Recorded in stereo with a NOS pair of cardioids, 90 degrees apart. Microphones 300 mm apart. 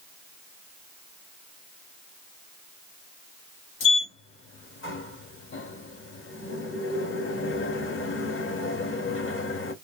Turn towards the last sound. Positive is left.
turn(degrees=45)